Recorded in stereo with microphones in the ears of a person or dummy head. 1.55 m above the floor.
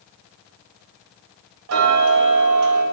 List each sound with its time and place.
1.7 s ticking: 75° right (ahead or behind), 0.8 m